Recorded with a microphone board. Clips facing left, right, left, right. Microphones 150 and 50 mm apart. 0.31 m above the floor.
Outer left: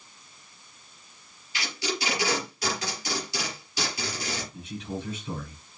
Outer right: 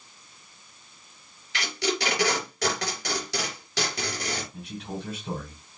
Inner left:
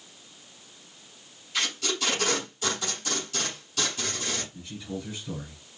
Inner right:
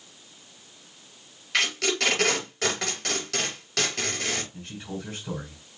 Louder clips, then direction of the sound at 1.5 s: Outer right 4 dB, inner right 5 dB; 80° right.